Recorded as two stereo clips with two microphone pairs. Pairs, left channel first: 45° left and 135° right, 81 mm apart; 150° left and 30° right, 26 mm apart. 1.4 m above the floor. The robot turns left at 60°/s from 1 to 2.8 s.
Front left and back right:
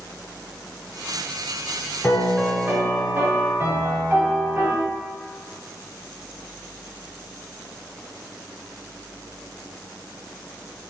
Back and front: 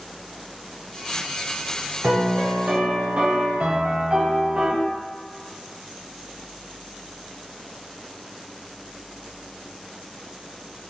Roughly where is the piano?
Ahead right.